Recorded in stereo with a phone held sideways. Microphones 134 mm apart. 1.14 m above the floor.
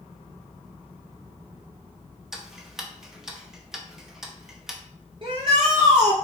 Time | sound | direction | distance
2.3 | ticking | 5° right (ahead or behind) | 0.6 m
5.2 | a shout | 40° right (ahead or behind) | 0.8 m